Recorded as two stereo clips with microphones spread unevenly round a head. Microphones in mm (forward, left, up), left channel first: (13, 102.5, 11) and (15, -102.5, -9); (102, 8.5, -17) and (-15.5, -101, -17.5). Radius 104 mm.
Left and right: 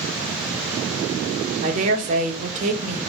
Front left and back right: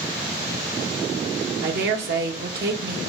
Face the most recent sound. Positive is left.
turn(degrees=-140)